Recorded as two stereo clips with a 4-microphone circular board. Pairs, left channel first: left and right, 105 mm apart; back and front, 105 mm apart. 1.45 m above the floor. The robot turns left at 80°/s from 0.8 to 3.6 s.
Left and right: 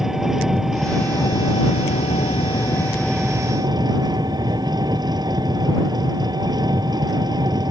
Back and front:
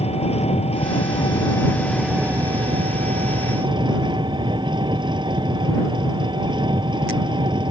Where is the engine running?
175° right; by 7.7 s 40° right.